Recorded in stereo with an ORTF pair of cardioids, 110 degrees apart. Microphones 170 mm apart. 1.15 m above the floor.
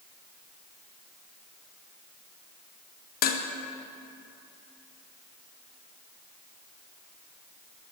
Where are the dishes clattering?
65° left, 0.7 m.